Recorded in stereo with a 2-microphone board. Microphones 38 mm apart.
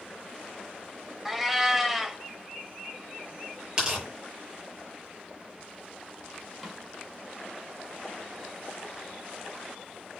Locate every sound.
1.2 s a cat meowing: 10° right (ahead or behind), 1.3 m
3.8 s tearing paper: 20° right (ahead or behind), 7 m
6.6 s a snare drum: 5° right (ahead or behind), 5.5 m